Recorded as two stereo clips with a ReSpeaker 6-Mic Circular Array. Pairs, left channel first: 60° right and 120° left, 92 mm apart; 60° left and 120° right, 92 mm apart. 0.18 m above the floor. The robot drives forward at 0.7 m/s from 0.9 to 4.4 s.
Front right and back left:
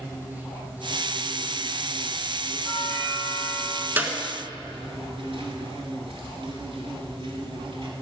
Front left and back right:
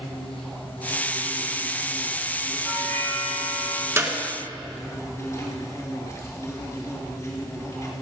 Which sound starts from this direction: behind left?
A doorbell, at 2.6 s.